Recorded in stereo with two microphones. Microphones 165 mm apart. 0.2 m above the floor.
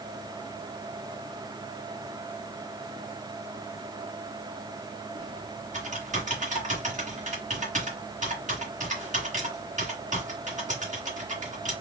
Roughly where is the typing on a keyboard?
Right.